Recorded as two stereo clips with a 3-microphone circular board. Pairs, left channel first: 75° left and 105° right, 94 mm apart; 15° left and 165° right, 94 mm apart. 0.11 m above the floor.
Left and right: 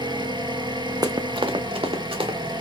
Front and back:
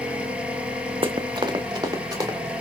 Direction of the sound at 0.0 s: 90° right.